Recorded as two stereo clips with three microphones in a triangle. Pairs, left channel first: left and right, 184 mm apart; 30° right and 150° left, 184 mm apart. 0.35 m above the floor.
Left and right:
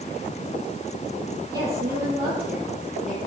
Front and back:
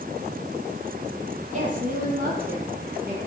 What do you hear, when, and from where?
1.5 s a woman speaking: 160° right, 8 m; by 3.2 s straight behind, 7.5 m